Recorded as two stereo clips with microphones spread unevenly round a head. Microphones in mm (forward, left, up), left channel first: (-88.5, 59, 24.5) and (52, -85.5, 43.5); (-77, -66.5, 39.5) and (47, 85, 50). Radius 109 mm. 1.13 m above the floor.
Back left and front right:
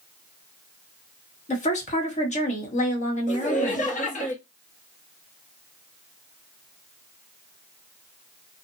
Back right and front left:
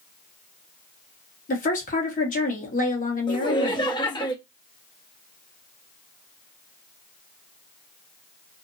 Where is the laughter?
170° left, 0.9 m.